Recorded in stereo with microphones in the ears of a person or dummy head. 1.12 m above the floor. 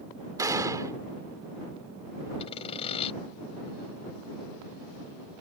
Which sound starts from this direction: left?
Sawing, at 2.4 s.